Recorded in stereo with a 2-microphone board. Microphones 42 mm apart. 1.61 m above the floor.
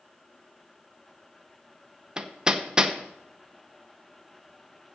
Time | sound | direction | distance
2.2 | hammering | 20° right (ahead or behind) | 0.7 m